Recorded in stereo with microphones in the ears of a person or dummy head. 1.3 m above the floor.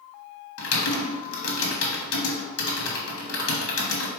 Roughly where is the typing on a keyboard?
Left.